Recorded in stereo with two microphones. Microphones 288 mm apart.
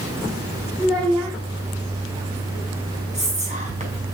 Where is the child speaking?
15° right (ahead or behind), 5.5 m.